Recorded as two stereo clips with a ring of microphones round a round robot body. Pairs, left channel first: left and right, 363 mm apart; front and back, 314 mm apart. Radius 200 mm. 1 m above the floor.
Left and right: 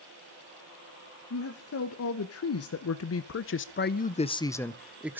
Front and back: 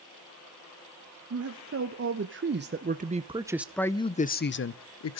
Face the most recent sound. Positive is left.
turn(degrees=-5)